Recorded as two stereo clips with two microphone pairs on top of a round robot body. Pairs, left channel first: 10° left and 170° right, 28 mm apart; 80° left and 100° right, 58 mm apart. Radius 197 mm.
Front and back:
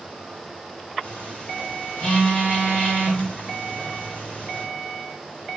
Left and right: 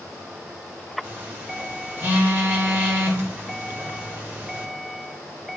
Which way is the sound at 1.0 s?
40° right.